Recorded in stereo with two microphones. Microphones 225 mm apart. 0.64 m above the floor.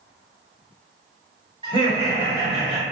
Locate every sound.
1.6 s laughter: 20° right (ahead or behind), 1.5 m